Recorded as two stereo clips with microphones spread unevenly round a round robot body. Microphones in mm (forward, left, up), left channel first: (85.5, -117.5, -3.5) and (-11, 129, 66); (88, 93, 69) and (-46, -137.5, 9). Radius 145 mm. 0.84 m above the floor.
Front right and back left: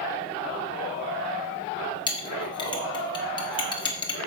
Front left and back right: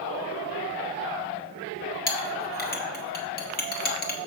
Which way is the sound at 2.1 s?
Straight ahead.